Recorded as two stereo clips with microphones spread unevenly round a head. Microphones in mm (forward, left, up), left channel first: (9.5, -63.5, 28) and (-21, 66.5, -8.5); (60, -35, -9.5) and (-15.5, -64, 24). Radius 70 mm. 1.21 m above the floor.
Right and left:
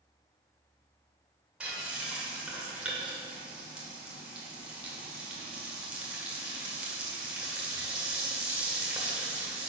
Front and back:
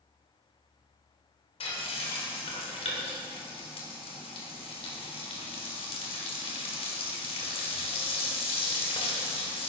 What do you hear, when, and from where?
1.6 s frying: 15° left, 2 m